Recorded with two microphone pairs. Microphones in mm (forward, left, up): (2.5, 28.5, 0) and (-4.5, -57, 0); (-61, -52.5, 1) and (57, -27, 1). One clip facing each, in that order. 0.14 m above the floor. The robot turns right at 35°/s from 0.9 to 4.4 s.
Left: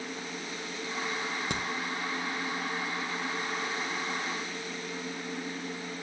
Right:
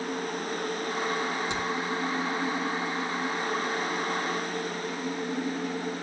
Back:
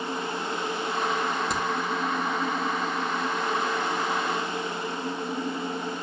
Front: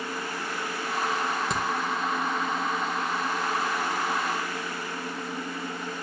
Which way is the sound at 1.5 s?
105° left.